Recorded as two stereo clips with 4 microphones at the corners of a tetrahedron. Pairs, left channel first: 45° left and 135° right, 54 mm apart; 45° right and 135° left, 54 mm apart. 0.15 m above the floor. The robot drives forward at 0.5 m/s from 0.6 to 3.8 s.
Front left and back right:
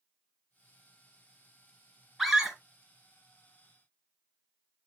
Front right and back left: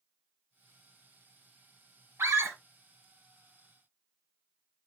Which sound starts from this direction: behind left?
A scream, at 2.2 s.